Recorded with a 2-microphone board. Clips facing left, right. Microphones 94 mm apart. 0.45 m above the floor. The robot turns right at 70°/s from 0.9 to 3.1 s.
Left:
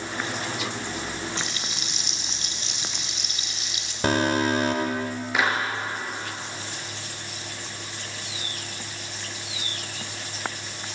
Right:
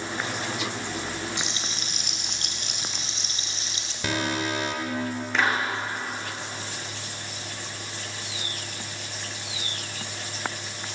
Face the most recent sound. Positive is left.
turn(degrees=10)  # may be behind; listen again after turning